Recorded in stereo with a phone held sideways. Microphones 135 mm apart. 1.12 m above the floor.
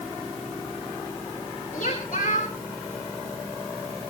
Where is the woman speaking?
60° left (ahead or behind), 5 m.